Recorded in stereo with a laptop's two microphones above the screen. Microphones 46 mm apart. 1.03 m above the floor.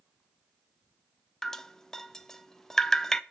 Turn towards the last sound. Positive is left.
turn(degrees=10)  # may be behind; listen again after turning